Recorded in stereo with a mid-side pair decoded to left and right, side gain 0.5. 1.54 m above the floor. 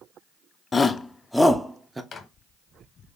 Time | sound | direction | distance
0.7 | a shout | 30° left | 0.9 m
2.1 | a microwave | 45° left | 1.2 m